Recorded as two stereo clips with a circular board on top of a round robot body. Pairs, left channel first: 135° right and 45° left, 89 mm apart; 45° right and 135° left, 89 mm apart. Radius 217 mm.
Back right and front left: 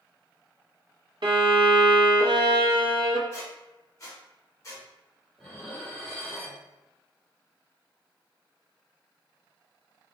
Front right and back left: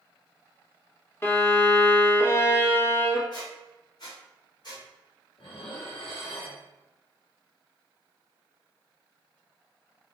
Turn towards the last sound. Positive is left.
turn(degrees=-50)